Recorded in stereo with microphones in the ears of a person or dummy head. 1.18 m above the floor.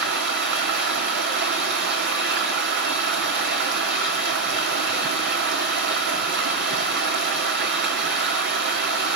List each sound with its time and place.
0.0 s running water: 50° right (ahead or behind), 1.4 m